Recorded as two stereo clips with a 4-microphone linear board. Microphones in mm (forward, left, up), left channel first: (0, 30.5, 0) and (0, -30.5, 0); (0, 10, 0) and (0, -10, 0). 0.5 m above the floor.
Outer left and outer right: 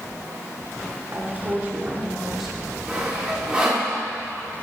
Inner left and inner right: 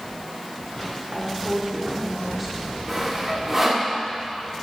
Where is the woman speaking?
45° right (ahead or behind), 1.6 m; by 2.8 s 10° left (ahead or behind), 1.2 m.